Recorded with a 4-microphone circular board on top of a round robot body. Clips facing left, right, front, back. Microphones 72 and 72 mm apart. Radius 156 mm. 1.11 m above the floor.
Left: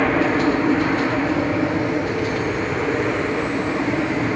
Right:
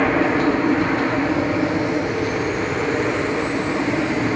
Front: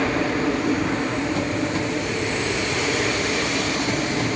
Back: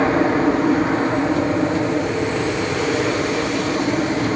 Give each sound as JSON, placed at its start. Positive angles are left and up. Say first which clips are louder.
{"t": 0.0, "sound": "an aircraft", "louder": "even, back 6 dB", "azimuth_deg": -175}